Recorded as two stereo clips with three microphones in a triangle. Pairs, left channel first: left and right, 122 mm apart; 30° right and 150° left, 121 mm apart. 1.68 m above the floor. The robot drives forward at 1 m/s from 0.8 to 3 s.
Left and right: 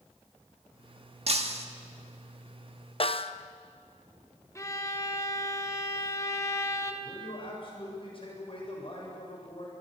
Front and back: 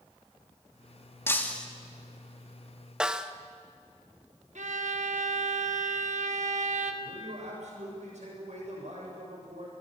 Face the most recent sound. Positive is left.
turn(degrees=135)